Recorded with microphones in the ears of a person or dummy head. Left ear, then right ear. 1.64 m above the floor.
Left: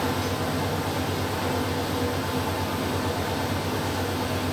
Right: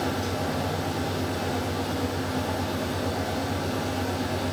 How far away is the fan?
About 0.9 m.